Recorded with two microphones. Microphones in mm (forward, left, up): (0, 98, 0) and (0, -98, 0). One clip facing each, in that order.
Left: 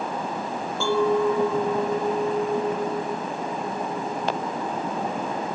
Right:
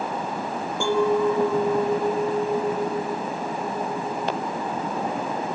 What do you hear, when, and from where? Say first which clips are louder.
0.8 s a clink: even; 15° right (ahead or behind), 2.5 m